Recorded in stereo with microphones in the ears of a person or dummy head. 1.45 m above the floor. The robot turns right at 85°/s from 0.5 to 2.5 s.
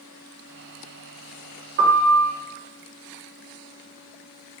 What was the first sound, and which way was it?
A piano, 55° right.